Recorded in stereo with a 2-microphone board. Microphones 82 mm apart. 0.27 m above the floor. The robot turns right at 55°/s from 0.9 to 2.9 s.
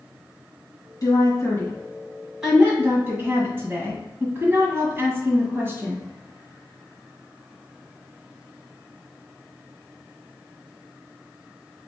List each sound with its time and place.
1.0 s a woman speaking: 50° left (ahead or behind), 2.0 m; by 6.0 s 25° right (ahead or behind), 2.0 m